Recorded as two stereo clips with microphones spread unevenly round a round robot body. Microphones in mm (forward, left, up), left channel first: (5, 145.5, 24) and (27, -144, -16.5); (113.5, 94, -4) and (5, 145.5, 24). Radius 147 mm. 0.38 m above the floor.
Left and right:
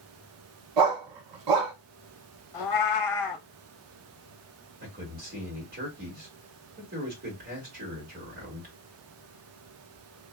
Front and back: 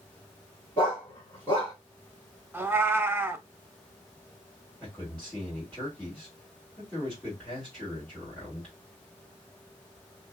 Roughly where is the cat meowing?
Left.